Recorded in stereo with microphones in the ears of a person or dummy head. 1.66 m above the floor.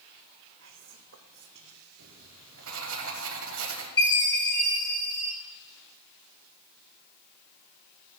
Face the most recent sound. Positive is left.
turn(degrees=25)  # may be behind; listen again after turning